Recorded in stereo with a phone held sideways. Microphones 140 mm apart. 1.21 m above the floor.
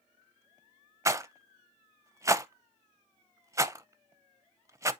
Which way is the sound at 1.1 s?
20° right (ahead or behind).